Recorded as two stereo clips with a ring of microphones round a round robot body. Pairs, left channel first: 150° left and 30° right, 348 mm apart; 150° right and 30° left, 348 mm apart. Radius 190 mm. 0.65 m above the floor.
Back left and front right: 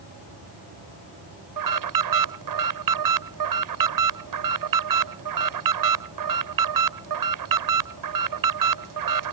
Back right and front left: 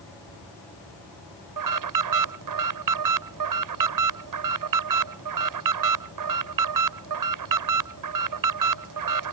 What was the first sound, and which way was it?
An alarm, straight ahead.